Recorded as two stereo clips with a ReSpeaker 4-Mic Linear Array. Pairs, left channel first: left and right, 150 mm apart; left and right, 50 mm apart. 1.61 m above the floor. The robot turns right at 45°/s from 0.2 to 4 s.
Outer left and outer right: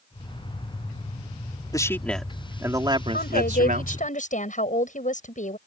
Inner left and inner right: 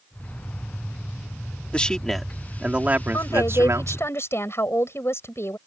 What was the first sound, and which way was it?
A man speaking, 155° left.